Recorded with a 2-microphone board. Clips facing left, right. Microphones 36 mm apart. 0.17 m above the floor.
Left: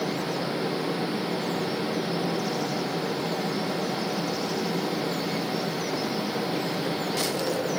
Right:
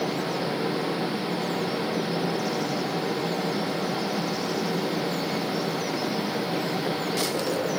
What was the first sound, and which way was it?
Only background noise.